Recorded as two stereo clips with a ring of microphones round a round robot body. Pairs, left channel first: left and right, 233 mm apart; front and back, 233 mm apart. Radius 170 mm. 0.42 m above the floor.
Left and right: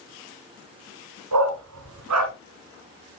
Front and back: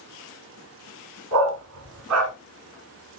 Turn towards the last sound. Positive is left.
turn(degrees=-135)